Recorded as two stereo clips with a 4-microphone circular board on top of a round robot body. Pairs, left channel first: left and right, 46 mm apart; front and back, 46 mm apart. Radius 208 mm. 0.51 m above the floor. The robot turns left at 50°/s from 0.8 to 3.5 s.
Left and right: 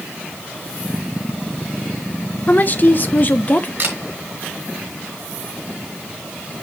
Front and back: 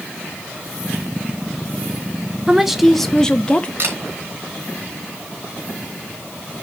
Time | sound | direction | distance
2.5 | a woman speaking | 110° left | 1.0 m
3.8 | a camera shutter | 135° right | 2.5 m